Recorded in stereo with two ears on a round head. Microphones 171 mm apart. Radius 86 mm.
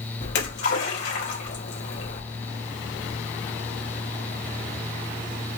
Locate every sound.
0.2 s a splash: 60° left (ahead or behind), 3.5 m